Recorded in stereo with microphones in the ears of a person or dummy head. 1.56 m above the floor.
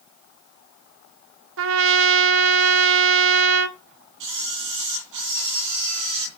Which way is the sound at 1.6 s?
75° right (ahead or behind).